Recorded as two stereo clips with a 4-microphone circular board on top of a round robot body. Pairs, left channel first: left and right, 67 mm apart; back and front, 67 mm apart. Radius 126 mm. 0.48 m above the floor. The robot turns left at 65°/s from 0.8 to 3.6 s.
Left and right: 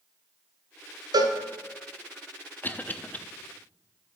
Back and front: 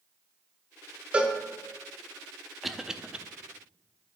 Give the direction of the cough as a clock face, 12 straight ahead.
9 o'clock.